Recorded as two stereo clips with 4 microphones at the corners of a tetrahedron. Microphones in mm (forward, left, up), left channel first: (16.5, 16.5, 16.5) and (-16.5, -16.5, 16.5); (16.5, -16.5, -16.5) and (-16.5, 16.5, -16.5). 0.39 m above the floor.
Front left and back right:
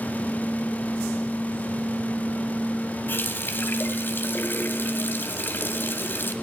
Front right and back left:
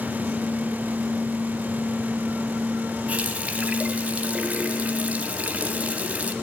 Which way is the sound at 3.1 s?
80° left.